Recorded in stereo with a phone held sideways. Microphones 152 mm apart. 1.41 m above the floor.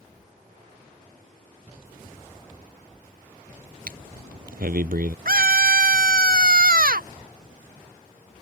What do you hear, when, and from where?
3.9 s breathing: 70° right (ahead or behind)
5.2 s a scream: 70° right (ahead or behind)